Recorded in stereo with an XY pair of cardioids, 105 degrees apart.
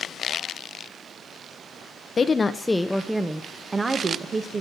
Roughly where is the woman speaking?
Ahead left.